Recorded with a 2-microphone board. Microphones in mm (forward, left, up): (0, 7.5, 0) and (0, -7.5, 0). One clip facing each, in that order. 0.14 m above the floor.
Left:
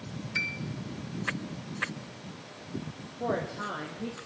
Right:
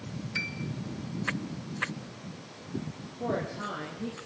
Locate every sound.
0.3 s a piano: 15° left (ahead or behind), 1.9 m
3.2 s a woman speaking: 20° left (ahead or behind), 5 m